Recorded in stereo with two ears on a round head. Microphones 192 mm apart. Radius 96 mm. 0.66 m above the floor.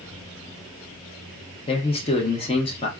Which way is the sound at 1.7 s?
25° left (ahead or behind).